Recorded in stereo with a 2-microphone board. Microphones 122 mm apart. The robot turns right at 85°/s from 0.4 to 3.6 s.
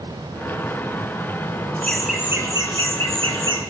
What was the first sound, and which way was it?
Laughter, 160° left.